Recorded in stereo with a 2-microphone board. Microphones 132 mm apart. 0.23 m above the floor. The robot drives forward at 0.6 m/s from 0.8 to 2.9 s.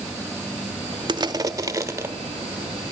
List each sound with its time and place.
1.1 s crushing: 35° right (ahead or behind), 0.7 m; by 2.1 s 20° right (ahead or behind), 1.3 m